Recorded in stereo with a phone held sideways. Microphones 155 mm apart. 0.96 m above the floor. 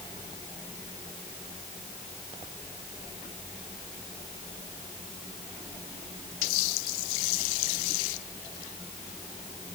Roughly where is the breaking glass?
I don't hear breaking glass.